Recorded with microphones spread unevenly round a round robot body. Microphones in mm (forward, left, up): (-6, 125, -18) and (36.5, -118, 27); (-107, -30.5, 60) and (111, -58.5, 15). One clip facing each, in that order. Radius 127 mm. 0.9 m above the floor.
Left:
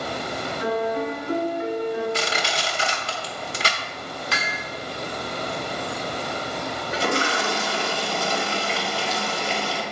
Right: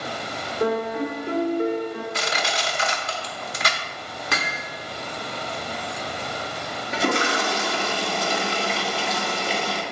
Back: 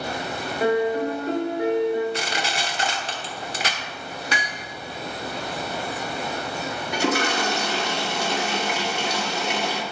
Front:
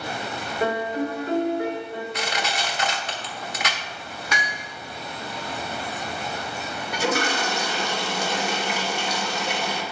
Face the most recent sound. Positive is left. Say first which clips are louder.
# right 2 dB, back 1 dB
turn(degrees=-150)